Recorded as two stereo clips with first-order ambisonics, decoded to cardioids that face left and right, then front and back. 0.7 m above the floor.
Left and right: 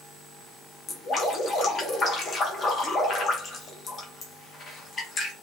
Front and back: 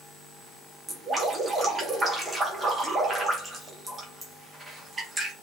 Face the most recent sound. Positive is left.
turn(degrees=110)